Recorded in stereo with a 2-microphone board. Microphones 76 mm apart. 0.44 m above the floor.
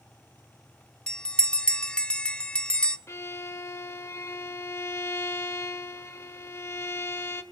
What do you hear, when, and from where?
1.1 s a bell: 10° left (ahead or behind), 0.6 m
3.1 s a violin: 40° left (ahead or behind), 0.9 m